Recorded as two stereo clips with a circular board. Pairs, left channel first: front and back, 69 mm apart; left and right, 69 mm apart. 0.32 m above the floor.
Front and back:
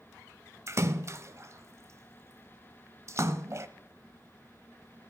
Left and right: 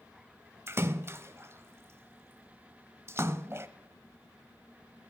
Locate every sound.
0.7 s a splash: 140° right, 0.6 m